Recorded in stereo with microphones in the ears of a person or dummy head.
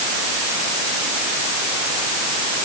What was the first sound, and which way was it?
Only background noise.